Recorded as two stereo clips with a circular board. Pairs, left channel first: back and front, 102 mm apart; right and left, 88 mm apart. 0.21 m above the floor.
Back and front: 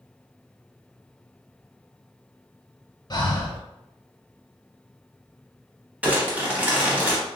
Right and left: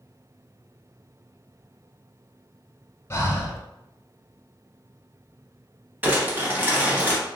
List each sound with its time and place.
3.1 s breathing: 145° right, 0.6 m
6.0 s crumpling: 55° left, 0.7 m